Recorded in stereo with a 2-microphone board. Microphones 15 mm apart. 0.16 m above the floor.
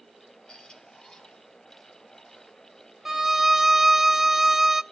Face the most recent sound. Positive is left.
turn(degrees=-25)  # may be behind; listen again after turning